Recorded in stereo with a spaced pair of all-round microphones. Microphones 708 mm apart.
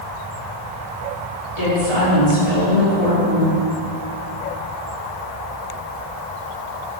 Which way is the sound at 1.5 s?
55° left (ahead or behind).